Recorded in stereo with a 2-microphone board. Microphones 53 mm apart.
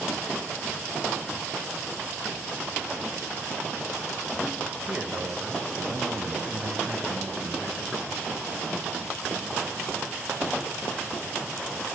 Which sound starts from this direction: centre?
A man speaking, at 4.9 s.